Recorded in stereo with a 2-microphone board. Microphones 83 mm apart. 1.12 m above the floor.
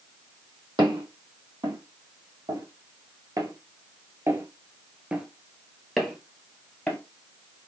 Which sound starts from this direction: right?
Footsteps, at 0.8 s.